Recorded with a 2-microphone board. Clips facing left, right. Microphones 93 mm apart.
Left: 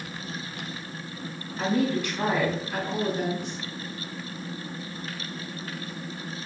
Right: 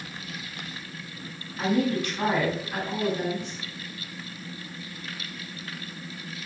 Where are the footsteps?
I don't hear footsteps.